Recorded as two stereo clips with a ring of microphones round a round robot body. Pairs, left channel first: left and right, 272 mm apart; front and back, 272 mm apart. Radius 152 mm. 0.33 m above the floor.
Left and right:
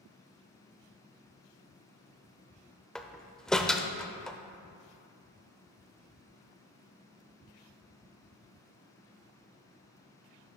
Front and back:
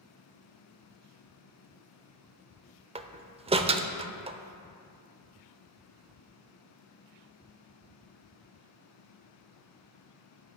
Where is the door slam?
175° left, 0.6 m.